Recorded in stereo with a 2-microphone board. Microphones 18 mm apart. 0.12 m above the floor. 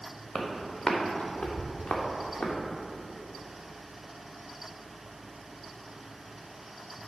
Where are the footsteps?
25° left (ahead or behind), 2.5 m; by 2.5 s 90° left, 2.5 m.